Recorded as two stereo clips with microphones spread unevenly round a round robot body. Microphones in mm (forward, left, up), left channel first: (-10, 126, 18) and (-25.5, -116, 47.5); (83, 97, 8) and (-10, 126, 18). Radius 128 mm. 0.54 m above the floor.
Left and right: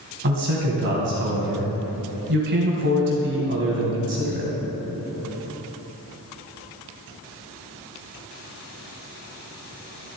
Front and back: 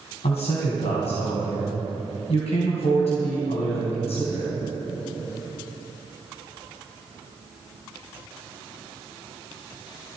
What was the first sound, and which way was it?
A man speaking, 45° right.